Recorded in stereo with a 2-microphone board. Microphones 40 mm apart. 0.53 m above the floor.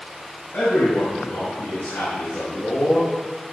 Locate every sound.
0.5 s a man speaking: 60° left (ahead or behind), 5 m; by 3.0 s 70° left (ahead or behind), 6.5 m